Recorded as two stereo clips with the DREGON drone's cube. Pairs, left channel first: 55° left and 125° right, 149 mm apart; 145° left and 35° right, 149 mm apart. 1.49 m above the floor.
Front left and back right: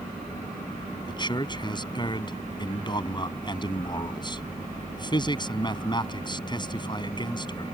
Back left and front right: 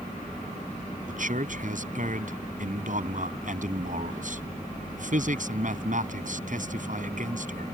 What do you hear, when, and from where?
1.1 s a man speaking: 5° right